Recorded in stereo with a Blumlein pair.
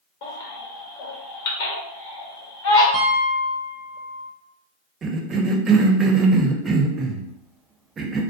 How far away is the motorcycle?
No motorcycle in this recording.